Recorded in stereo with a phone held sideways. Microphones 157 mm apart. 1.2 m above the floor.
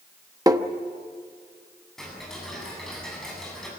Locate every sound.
0.5 s tapping: 25° right (ahead or behind), 1.0 m
2.0 s ticking: 5° left (ahead or behind), 7.5 m